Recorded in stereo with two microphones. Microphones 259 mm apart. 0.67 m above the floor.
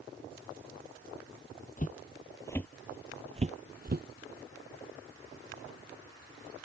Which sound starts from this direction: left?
Footsteps, at 1.8 s.